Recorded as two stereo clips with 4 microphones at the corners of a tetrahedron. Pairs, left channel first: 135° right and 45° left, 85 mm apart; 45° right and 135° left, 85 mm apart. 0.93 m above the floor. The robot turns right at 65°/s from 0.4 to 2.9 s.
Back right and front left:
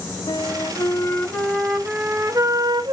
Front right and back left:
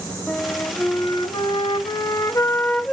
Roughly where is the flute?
Behind right.